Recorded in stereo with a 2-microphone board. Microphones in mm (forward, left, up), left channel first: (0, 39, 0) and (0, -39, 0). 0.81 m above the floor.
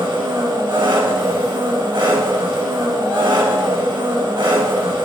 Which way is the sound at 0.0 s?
60° right (ahead or behind).